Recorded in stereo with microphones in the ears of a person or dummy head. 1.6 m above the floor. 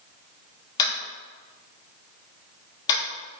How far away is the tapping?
About 1.2 m.